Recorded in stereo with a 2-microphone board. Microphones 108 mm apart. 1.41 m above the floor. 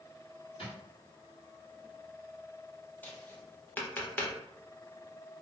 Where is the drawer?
60° left (ahead or behind), 1.3 m.